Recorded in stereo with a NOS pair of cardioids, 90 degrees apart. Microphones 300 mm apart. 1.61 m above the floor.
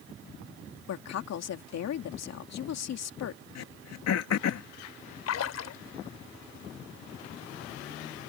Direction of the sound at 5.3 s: 60° left.